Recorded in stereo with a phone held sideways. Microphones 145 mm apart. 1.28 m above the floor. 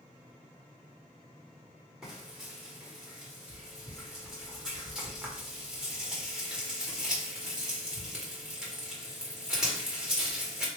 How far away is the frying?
About 1.2 m.